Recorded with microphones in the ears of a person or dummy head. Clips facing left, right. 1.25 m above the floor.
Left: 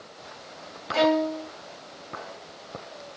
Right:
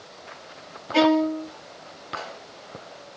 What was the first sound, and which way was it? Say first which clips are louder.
A violin: right 3 dB; 50° right (ahead or behind).